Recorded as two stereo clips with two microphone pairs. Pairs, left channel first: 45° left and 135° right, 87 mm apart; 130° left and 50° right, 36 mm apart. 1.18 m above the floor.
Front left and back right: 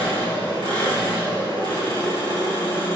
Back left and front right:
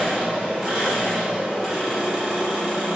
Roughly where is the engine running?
Ahead left.